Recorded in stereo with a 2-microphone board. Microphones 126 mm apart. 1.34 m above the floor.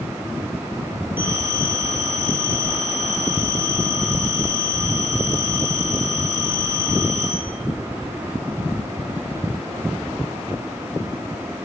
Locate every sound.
1.2 s a phone ringing: 15° right (ahead or behind), 9 m